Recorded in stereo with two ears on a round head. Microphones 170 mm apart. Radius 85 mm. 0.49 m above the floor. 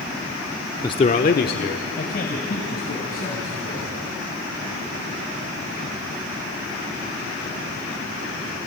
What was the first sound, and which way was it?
A man speaking, 15° left (ahead or behind).